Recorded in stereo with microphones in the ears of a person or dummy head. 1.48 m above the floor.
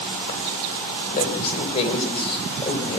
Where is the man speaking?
35° left (ahead or behind), 6 m; by 3.0 s 20° left (ahead or behind), 6 m.